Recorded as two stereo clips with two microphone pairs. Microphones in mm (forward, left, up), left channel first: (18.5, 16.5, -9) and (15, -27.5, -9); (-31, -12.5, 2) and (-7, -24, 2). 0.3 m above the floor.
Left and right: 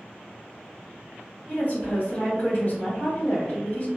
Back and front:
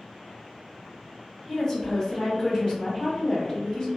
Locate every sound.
1.5 s a woman speaking: 110° left, 1.8 m